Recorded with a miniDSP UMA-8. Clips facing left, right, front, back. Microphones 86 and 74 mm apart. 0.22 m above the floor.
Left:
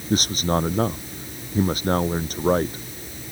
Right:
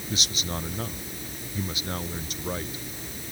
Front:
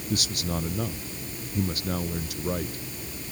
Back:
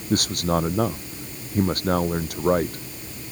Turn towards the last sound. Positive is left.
turn(degrees=135)